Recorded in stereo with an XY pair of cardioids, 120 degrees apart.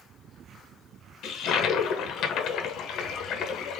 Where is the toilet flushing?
65° left, 0.7 m.